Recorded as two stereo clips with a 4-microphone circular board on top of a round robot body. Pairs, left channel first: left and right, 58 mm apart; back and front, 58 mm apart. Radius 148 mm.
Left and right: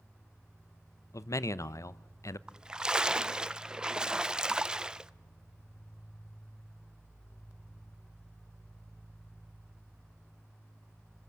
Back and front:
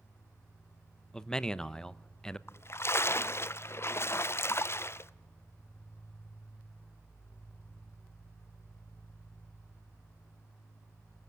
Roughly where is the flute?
No flute in this recording.